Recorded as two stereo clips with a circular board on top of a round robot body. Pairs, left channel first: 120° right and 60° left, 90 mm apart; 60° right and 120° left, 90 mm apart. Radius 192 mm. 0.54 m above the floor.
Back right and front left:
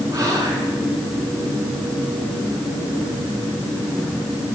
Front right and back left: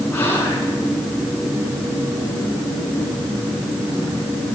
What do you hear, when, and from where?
0.1 s whispering: 5° left, 8.5 m